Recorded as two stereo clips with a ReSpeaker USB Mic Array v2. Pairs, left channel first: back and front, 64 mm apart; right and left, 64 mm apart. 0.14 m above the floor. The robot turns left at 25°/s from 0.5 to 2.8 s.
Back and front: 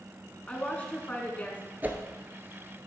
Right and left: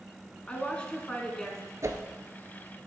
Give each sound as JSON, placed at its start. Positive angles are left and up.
{"t": 0.5, "sound": "a woman speaking", "azimuth_deg": -135, "distance_m": 1.2}
{"t": 1.8, "sound": "a whoosh", "azimuth_deg": 60, "distance_m": 0.7}